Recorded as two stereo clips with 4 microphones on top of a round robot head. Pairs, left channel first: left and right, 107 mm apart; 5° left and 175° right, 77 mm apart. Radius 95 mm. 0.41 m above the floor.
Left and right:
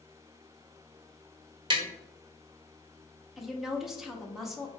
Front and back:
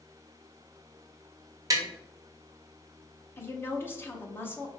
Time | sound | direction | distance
1.7 | tapping | 130° right | 0.9 m
3.4 | a woman speaking | 5° right | 0.9 m